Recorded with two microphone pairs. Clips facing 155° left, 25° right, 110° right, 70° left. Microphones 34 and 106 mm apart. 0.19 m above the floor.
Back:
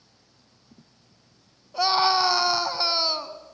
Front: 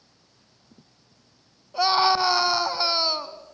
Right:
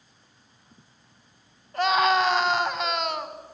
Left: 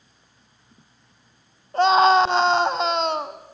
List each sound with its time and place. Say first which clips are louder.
1.7 s a scream: front 1 dB, left 6 dB; 60° left, 1.1 m